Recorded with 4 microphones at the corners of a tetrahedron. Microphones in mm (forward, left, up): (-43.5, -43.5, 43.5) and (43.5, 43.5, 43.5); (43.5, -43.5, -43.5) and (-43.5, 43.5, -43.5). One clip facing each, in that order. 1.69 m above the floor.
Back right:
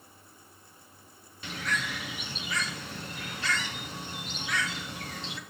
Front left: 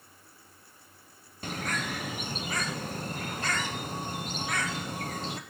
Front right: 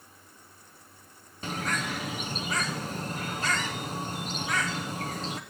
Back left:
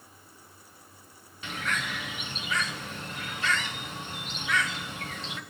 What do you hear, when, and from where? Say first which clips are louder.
1.4 s a bird: front left 1 dB, front right 2 dB; 5° left, 0.8 m